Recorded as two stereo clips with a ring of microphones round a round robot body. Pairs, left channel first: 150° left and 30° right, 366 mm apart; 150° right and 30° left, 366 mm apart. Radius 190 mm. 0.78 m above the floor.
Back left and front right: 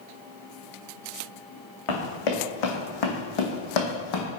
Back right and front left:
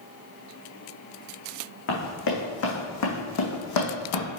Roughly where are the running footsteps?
Behind left.